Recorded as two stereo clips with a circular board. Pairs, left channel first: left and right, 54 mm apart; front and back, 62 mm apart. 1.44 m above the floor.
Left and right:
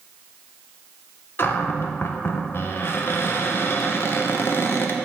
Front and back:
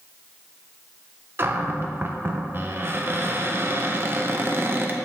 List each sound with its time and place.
1.4 s a cupboard door: 130° left, 0.5 m